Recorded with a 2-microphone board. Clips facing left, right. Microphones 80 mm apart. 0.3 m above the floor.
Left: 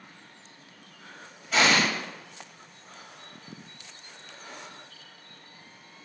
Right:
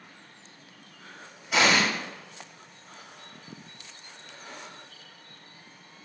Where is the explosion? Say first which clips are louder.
Even; 10° right (ahead or behind), 1.7 m.